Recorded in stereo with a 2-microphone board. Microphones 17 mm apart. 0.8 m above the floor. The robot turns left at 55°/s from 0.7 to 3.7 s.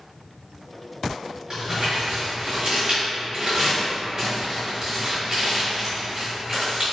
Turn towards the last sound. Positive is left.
turn(degrees=-25)  # may be behind; listen again after turning